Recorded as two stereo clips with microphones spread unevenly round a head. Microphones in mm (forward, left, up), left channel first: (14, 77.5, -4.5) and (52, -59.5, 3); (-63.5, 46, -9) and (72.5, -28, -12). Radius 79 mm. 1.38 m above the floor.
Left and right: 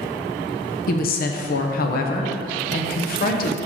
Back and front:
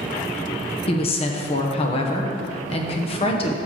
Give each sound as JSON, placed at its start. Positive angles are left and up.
{"t": 0.9, "sound": "a woman speaking", "azimuth_deg": 100, "distance_m": 0.9}